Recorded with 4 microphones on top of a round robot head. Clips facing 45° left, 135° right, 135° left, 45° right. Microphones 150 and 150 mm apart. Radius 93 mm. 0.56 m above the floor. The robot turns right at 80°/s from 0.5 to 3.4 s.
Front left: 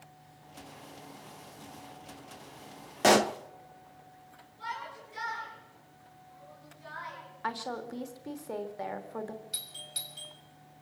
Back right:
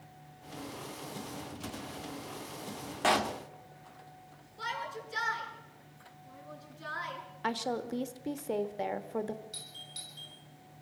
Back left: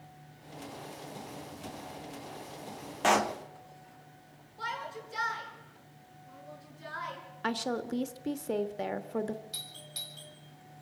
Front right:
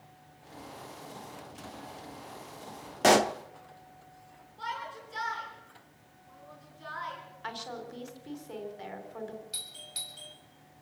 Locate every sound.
3.0 s a pop: straight ahead, 0.7 m; by 3.4 s 25° left, 0.7 m
4.6 s a shout: 140° right, 7 m
7.4 s a woman speaking: 160° left, 1.5 m
9.5 s a doorbell: 30° left, 5 m